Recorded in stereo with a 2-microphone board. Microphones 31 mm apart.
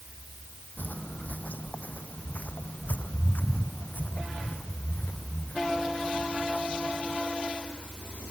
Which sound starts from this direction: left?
Footsteps, at 0.8 s.